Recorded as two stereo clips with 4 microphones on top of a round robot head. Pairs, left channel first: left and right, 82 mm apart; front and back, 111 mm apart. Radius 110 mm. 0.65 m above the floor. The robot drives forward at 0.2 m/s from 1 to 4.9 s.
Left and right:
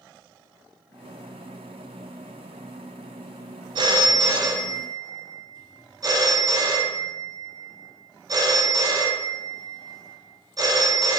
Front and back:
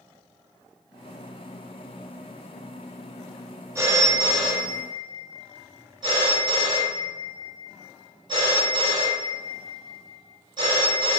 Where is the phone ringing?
115° right, 0.6 m; by 11.2 s 135° right, 0.7 m.